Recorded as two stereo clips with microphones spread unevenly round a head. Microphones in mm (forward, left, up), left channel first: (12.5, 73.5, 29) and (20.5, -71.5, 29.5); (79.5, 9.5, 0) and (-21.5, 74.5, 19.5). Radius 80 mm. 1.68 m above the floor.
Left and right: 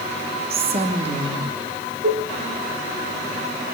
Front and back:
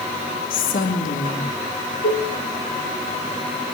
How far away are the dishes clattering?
About 1.9 m.